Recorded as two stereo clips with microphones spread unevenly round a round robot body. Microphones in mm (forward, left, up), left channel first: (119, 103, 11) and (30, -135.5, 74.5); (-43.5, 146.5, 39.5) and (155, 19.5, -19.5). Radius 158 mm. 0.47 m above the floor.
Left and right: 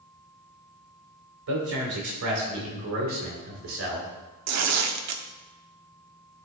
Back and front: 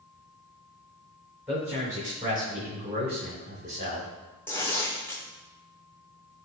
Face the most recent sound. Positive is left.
turn(degrees=-120)